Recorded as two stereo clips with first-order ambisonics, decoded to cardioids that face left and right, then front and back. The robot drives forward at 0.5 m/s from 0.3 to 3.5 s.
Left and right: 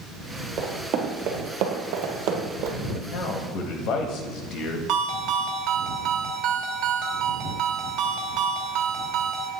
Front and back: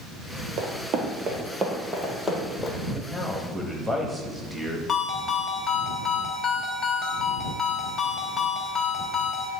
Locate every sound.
0.6 s running footsteps: 145° right, 1.5 m; by 2.8 s 80° right, 1.7 m
2.9 s a man speaking: 70° left, 0.8 m; by 4.8 s 95° left, 0.8 m
4.9 s a ringtone: 70° right, 1.0 m